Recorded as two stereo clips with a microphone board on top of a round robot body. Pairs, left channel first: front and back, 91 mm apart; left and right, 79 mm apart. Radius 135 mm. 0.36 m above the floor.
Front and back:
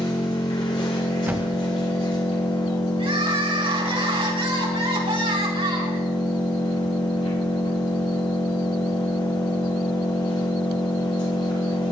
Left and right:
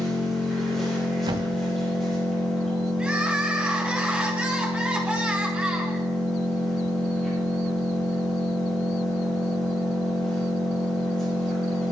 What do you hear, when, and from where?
0.0 s an engine running: 5° left, 7.5 m
1.3 s a thud: 110° right, 1.5 m
3.0 s crying: 170° right, 5 m